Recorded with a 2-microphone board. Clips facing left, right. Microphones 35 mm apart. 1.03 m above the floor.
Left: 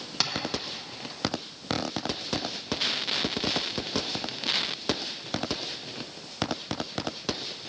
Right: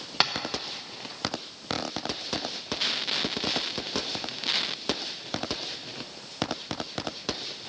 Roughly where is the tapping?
Right.